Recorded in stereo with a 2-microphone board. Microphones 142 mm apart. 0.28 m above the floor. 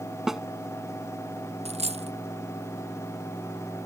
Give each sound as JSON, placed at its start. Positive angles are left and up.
{"t": 0.3, "sound": "a snare drum", "side_deg": -5}
{"t": 1.6, "sound": "a dropped coin", "side_deg": -45}